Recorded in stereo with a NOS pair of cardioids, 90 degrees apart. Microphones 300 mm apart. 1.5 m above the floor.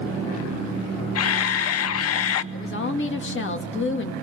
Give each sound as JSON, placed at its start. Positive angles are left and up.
{"t": 1.1, "sound": "a camera shutter", "azimuth_deg": 55, "distance_m": 0.7}
{"t": 2.5, "sound": "a woman speaking", "azimuth_deg": 40, "distance_m": 2.5}